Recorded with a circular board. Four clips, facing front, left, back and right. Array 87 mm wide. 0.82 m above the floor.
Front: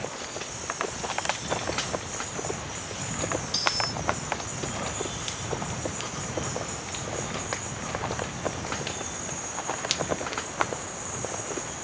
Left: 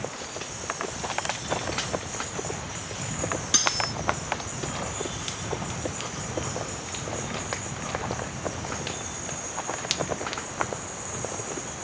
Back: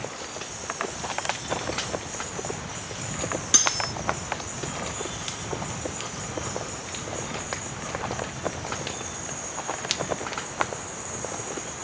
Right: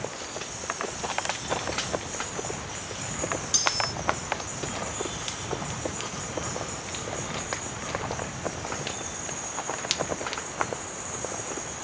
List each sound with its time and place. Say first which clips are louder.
3.5 s cutlery clinking: even, back 1 dB; 140° left